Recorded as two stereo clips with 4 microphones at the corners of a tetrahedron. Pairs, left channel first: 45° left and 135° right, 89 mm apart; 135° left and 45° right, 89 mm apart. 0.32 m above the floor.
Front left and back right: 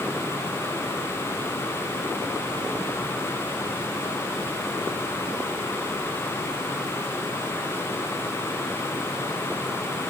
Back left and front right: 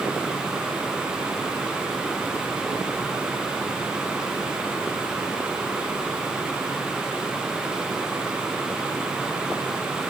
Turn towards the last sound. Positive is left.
No sound to turn to.